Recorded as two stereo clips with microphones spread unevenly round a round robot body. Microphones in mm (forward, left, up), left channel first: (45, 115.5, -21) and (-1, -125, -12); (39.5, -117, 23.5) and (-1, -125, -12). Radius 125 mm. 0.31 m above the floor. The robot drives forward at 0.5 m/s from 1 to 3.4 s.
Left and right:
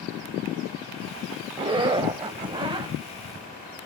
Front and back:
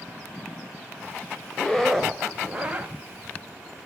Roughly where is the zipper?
Behind right.